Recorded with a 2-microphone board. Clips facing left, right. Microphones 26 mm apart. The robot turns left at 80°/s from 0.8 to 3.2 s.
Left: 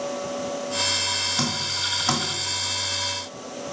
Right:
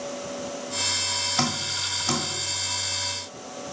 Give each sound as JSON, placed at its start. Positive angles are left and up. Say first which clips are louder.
{"t": 1.4, "sound": "dripping", "louder": "left 1 dB", "side_deg": -30, "distance_m": 1.8}